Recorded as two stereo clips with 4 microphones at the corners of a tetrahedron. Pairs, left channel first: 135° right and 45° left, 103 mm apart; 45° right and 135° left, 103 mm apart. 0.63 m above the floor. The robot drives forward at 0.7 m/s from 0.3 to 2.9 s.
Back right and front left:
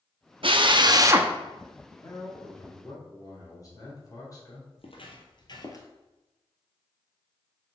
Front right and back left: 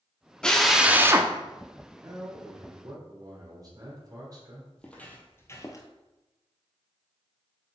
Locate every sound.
0.4 s a drill: 35° left, 0.7 m; by 1.3 s 110° left, 0.5 m
2.0 s a man speaking: straight behind, 1.8 m
4.8 s footsteps: 125° right, 1.3 m; by 5.9 s 85° right, 0.9 m